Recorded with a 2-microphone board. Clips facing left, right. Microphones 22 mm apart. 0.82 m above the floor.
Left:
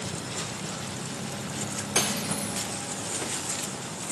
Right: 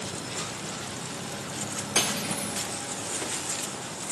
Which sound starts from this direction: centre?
Cutlery clinking, at 1.9 s.